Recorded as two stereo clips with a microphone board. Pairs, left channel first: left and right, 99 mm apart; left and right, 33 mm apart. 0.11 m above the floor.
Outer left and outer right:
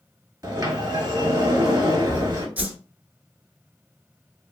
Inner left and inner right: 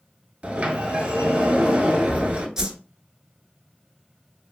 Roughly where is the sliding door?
Right.